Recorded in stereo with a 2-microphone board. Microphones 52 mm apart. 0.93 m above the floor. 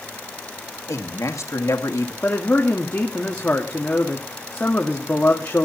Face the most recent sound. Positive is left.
turn(degrees=30)  # may be behind; listen again after turning